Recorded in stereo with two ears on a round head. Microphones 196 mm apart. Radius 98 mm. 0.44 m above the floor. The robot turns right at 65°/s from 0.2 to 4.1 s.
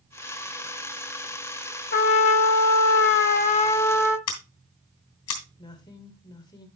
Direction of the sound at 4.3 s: 75° left (ahead or behind).